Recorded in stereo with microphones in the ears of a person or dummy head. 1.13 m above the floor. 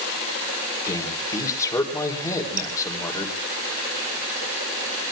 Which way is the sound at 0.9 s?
15° left (ahead or behind).